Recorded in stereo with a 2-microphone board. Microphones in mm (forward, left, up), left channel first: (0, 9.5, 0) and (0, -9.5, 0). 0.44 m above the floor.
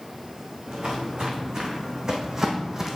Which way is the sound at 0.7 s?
35° right (ahead or behind).